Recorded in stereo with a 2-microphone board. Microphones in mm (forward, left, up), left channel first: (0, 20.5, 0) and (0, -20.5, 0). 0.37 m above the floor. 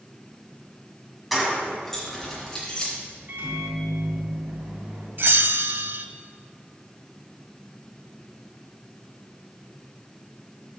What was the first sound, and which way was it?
Keys jangling, centre (ahead or behind).